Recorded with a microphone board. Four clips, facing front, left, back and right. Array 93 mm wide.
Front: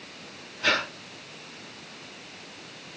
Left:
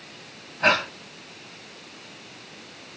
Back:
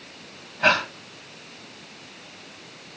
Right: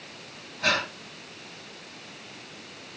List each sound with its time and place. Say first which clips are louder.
0.6 s breathing: left 5 dB, back 6 dB; 145° left, 3.5 m